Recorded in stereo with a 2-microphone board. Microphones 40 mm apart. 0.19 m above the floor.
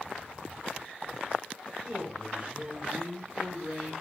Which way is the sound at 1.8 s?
25° right (ahead or behind).